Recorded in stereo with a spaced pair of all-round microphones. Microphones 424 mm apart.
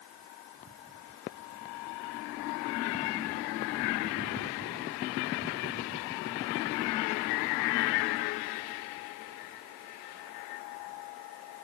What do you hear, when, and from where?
Only background noise.